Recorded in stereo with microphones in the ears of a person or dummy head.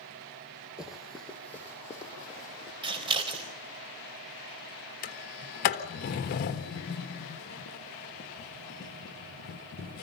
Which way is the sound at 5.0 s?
40° left (ahead or behind).